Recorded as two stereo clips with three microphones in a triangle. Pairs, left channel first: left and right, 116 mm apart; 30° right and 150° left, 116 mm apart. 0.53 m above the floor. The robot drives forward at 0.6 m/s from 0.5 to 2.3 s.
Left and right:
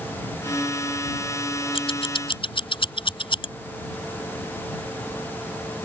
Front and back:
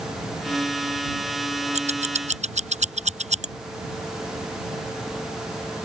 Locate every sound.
1.7 s scissors: 130° left; by 3.5 s 135° left